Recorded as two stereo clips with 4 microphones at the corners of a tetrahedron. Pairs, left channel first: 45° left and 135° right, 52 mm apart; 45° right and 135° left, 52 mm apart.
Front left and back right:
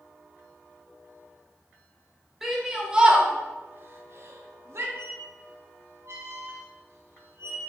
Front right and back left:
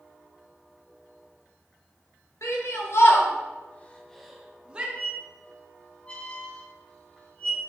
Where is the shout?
50° right, 1.6 m; by 4.8 s 160° right, 1.2 m.